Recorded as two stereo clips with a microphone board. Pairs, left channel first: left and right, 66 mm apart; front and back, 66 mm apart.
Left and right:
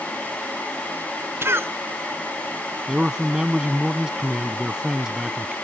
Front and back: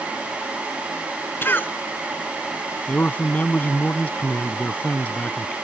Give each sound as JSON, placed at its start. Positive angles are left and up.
{"t": 1.4, "sound": "a cough", "azimuth_deg": -50}
{"t": 2.9, "sound": "a man speaking", "azimuth_deg": -25}